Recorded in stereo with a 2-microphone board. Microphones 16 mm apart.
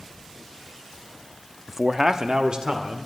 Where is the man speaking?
5° right (ahead or behind), 0.5 m; by 3.1 s 65° right (ahead or behind), 1.9 m.